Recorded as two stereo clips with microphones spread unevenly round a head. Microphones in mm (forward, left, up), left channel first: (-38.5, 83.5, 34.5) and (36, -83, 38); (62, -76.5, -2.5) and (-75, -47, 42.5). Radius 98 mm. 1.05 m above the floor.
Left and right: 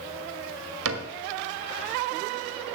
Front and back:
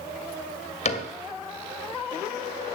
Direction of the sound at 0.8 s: 60° right.